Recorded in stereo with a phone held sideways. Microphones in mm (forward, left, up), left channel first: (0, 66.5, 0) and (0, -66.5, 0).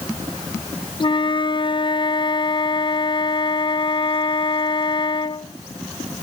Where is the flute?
40° left (ahead or behind), 0.5 m.